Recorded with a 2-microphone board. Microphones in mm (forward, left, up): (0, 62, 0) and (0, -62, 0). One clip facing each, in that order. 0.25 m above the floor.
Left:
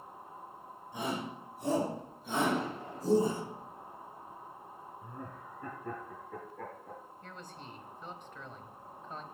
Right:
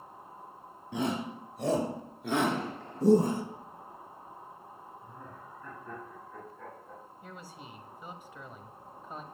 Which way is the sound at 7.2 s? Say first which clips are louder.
Right 3 dB; 10° right (ahead or behind).